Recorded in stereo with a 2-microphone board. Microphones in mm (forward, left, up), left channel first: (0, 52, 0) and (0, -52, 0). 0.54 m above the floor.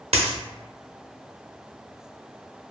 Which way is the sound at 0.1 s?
80° right.